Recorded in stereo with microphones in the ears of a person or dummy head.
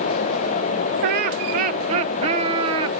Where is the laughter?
50° right (ahead or behind), 1.5 m; by 3.0 s 20° right (ahead or behind), 2.0 m.